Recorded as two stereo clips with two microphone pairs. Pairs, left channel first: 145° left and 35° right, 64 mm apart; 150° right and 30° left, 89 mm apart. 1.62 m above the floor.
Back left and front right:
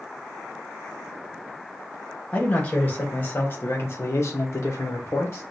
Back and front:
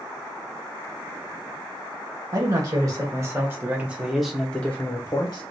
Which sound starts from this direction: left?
A man speaking, at 2.3 s.